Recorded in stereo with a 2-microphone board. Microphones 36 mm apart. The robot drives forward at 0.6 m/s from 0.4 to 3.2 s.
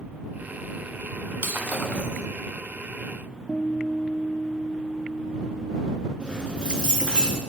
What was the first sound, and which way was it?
Breaking glass, 60° right (ahead or behind).